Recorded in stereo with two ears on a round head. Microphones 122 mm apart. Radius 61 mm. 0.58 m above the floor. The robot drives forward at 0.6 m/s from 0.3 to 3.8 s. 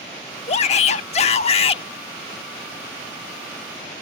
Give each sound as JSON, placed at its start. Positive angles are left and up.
{"t": 0.5, "sound": "a shout", "side_deg": 45}